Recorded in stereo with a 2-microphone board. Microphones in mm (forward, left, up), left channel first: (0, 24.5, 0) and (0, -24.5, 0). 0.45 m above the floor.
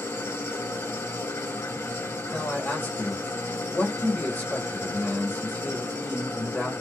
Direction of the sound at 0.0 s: 75° left (ahead or behind).